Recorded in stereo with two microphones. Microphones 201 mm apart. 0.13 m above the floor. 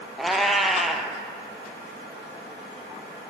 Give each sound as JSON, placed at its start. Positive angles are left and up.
{"t": 0.2, "sound": "a cat meowing", "side_deg": 0, "distance_m": 0.5}